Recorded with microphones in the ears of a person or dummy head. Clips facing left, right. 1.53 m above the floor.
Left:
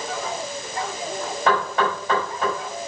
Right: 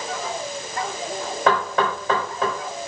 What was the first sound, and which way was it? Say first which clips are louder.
Knocking: right 1 dB; 75° right (ahead or behind).